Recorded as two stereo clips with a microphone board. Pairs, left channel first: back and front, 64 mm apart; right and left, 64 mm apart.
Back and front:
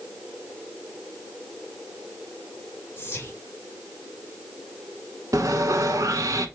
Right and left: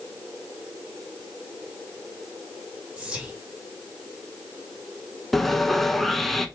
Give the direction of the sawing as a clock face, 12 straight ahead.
12 o'clock.